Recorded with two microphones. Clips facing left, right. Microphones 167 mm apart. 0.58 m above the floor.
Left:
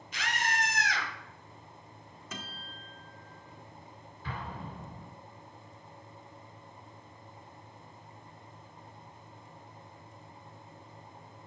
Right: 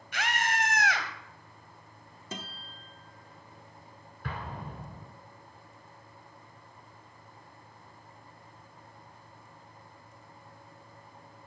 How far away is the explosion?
About 2.5 m.